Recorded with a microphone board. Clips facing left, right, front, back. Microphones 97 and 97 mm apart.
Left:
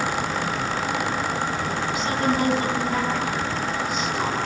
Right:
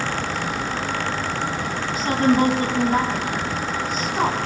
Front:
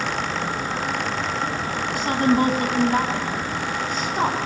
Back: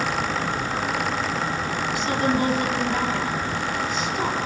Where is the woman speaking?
40° right, 3.5 m.